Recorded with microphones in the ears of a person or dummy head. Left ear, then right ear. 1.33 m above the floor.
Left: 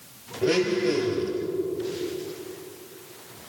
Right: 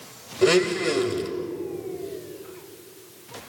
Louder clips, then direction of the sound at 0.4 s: Right 3 dB; 60° right (ahead or behind).